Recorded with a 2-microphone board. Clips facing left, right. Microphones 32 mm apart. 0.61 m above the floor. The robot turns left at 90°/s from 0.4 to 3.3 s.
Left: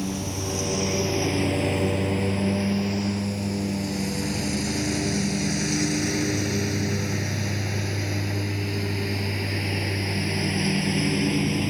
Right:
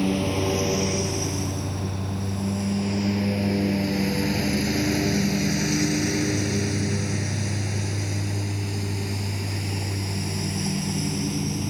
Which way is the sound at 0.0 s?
35° right (ahead or behind).